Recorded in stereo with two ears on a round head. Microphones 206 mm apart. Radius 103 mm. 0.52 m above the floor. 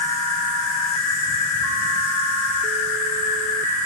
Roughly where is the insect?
Left.